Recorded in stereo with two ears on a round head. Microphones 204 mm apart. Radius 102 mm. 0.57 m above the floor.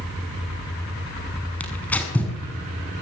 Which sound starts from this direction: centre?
Tearing paper, at 1.6 s.